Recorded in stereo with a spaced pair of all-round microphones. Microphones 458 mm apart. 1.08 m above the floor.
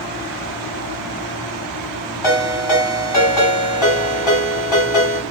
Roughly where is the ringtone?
Left.